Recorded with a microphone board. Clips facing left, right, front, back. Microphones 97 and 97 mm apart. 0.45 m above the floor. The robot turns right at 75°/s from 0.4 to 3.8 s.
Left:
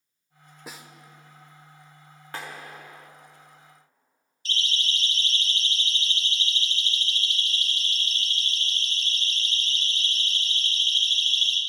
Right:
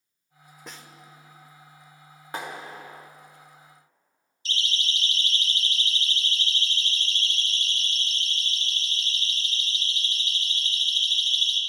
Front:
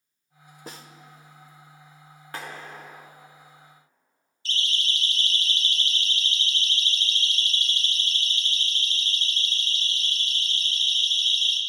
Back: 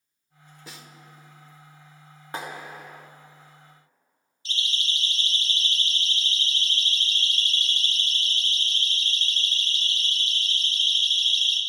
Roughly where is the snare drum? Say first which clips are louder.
Left 2 dB, front 4 dB; ahead.